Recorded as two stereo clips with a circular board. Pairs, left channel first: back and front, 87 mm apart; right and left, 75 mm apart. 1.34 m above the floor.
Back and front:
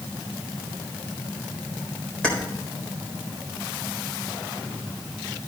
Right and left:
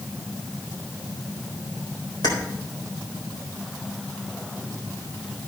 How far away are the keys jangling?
About 4 m.